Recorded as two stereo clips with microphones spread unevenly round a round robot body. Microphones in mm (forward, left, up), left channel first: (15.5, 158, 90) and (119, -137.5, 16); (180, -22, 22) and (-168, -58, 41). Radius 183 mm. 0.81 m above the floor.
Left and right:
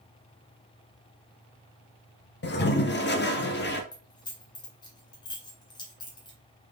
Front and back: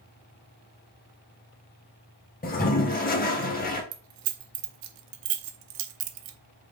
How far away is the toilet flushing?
About 1.1 m.